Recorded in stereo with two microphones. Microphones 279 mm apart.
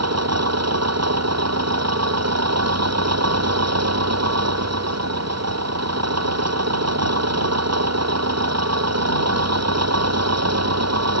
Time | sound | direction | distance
0.0 | an engine running | 70° right (ahead or behind) | ?